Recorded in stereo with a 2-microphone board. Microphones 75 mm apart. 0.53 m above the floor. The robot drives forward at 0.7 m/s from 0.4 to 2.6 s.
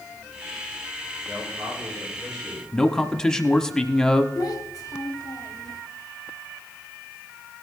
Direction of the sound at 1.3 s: 55° right (ahead or behind).